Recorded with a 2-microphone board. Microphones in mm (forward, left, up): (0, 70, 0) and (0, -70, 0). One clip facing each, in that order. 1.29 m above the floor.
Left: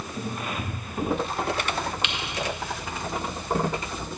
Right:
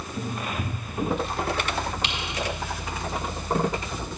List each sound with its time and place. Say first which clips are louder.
2.0 s typing on a keyboard: right 1 dB; 35° right (ahead or behind), 1.0 m